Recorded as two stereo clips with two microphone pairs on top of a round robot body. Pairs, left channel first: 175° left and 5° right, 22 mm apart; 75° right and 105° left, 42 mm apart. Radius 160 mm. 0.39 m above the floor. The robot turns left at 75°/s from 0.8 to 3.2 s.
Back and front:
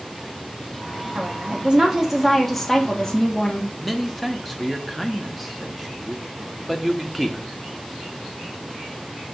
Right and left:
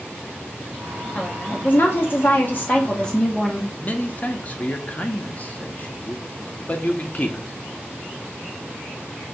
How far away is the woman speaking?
About 1.1 m.